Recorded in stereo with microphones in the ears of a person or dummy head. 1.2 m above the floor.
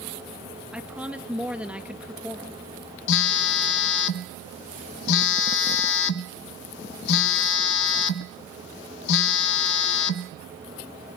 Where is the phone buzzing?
65° left (ahead or behind), 0.7 m.